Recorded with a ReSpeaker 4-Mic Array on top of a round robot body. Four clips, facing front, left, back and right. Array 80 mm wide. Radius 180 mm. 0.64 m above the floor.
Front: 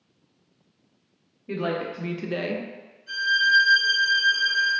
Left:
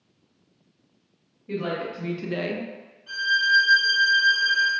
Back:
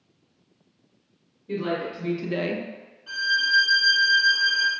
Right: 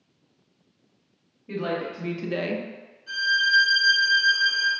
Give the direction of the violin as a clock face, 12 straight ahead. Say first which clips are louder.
Left 1 dB, front 3 dB; 6 o'clock.